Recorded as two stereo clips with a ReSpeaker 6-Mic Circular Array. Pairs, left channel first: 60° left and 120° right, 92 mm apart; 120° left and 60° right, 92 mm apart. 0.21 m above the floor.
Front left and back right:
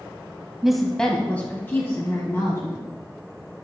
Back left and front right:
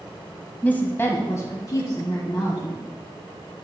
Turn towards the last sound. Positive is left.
turn(degrees=100)